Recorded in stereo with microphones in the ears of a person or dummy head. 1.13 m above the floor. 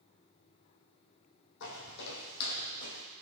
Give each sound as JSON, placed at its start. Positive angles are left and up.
{"t": 1.6, "sound": "footsteps", "side_deg": 65, "distance_m": 3.0}